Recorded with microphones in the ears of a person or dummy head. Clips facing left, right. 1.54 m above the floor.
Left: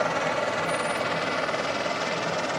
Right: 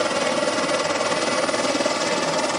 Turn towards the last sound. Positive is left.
turn(degrees=-65)  # may be behind; listen again after turning